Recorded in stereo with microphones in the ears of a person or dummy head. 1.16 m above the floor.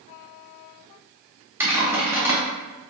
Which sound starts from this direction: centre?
Typing on a keyboard, at 1.6 s.